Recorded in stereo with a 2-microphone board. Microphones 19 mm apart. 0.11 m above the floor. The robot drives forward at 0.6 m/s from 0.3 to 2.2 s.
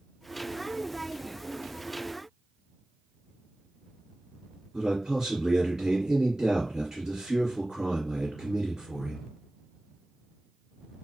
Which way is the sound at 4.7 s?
30° right (ahead or behind).